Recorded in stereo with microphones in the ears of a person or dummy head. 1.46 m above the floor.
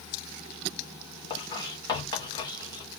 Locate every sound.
1.3 s writing: 25° left (ahead or behind), 1.2 m